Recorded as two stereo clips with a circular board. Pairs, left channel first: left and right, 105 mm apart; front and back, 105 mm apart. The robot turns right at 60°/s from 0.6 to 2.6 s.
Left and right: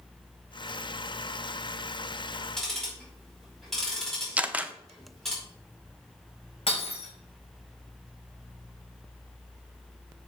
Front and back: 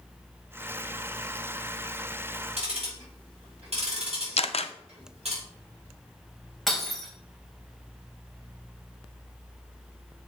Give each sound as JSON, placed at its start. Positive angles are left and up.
{"t": 2.6, "sound": "ticking", "azimuth_deg": 175, "distance_m": 4.5}
{"t": 4.4, "sound": "a camera shutter", "azimuth_deg": -15, "distance_m": 0.6}
{"t": 6.7, "sound": "breaking glass", "azimuth_deg": 85, "distance_m": 2.5}